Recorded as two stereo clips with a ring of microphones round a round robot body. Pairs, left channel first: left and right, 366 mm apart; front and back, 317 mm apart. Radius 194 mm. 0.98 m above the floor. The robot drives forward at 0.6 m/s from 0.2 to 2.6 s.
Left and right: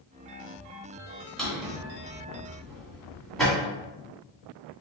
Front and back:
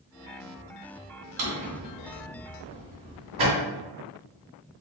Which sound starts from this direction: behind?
A drawer, at 1.4 s.